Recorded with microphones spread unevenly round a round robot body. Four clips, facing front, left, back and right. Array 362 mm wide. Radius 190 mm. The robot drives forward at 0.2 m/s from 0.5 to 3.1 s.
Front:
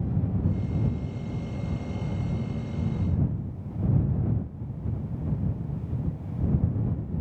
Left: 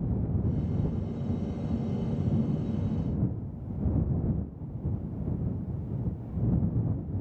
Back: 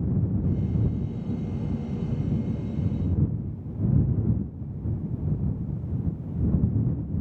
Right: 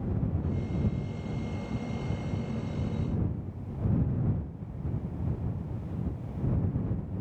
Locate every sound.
Only background noise.